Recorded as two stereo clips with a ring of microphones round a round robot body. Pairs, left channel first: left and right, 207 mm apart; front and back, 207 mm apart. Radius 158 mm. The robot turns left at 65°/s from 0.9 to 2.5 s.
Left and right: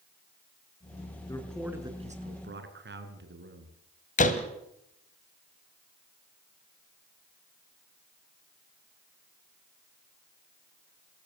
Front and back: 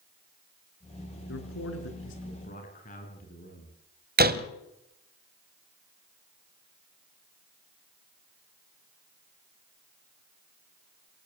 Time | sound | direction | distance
1.3 | a man speaking | 20° left | 4.5 m
4.2 | a door slam | 145° left | 1.7 m